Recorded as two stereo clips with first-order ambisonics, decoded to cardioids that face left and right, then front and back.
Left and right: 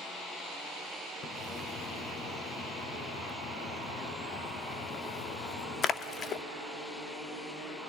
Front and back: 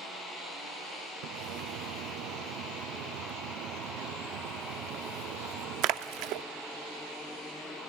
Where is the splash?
150° left, 0.6 m.